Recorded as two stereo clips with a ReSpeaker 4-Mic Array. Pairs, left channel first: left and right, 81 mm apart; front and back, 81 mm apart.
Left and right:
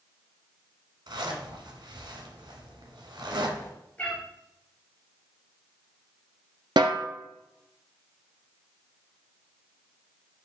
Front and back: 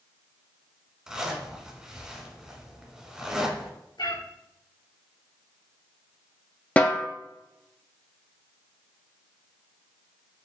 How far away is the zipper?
About 1.0 m.